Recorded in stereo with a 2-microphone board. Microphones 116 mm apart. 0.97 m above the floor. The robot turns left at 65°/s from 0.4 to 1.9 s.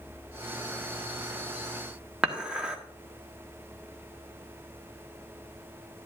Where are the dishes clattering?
10° right (ahead or behind), 1.3 m.